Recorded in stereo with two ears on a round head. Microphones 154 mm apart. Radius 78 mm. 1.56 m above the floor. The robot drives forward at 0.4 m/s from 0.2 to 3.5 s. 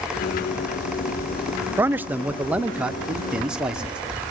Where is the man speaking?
15° right (ahead or behind), 0.5 m; by 4.0 s 5° right (ahead or behind), 1.2 m.